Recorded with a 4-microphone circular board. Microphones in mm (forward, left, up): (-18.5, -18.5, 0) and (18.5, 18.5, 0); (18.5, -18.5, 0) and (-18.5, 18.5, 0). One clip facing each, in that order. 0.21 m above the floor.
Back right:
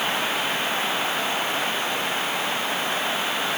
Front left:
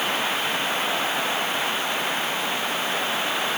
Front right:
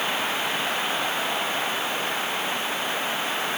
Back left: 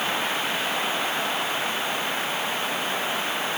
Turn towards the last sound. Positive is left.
No sound to turn to.